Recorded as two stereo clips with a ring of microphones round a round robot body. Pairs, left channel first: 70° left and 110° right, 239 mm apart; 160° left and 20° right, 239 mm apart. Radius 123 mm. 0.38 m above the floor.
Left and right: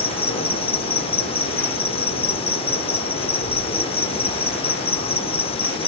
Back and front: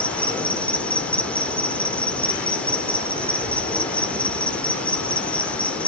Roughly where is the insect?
Left.